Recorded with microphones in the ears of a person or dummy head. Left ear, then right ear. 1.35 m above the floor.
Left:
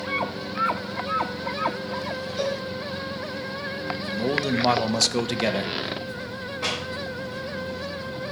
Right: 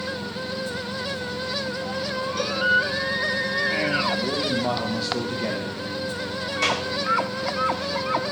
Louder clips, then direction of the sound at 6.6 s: Right 5 dB; 75° right (ahead or behind).